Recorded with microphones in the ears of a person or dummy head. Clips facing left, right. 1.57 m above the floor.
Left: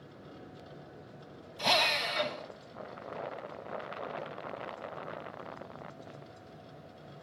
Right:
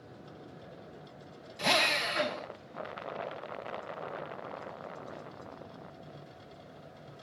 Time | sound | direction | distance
1.6 | a drill | 25° right (ahead or behind) | 1.8 m